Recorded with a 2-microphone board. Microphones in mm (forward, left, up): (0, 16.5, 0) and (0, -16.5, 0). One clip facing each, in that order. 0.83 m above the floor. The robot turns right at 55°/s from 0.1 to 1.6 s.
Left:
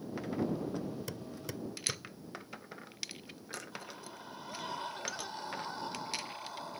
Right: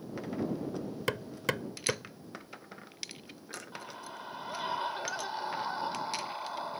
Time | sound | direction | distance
1.1 | hammering | 70° right (ahead or behind) | ?
3.7 | a scream | 25° right (ahead or behind) | ?